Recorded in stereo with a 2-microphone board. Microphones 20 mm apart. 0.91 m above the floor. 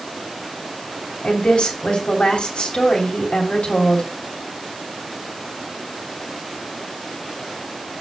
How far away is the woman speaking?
About 3 m.